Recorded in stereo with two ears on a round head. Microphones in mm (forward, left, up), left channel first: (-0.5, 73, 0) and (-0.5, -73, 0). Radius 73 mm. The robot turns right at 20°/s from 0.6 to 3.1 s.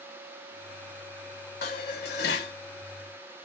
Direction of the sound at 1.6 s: 65° left (ahead or behind).